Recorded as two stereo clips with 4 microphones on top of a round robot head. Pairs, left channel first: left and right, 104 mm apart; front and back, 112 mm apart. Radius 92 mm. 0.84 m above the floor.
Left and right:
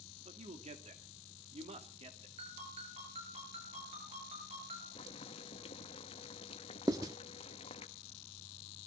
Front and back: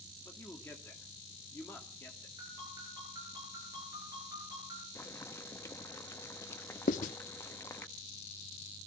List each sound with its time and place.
0.2 s a man speaking: 75° right, 2.5 m
2.4 s a ringtone: 120° right, 8.5 m
5.0 s boiling: 65° left, 1.2 m
6.9 s writing: 25° right, 0.7 m